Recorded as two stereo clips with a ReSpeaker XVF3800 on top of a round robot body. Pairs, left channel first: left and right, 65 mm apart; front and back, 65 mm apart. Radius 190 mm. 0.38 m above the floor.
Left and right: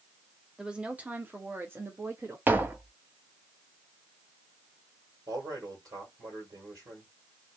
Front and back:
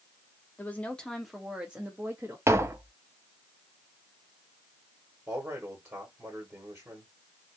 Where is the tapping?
140° right, 0.9 m.